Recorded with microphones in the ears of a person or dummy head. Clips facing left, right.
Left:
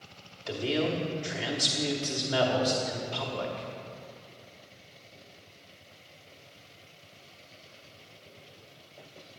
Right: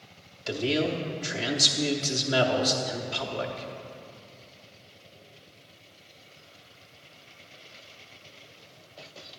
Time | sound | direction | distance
0.5 | a man speaking | 25° right (ahead or behind) | 0.8 m